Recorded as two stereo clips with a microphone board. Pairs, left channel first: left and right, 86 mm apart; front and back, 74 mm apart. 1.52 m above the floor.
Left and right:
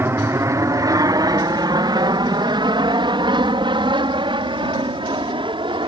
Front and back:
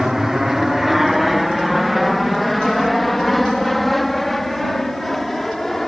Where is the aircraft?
100° right; by 5.9 s 85° right.